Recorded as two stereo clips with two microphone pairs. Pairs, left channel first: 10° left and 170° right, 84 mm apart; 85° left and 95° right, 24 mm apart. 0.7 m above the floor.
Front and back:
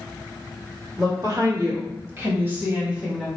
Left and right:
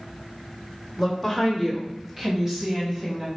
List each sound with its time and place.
1.0 s a woman speaking: straight behind, 1.4 m; by 3.3 s 85° right, 1.1 m